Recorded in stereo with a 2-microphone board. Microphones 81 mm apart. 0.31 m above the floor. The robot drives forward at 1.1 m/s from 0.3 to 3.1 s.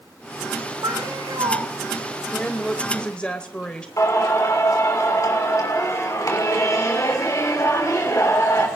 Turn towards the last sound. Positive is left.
turn(degrees=40)  # may be behind; listen again after turning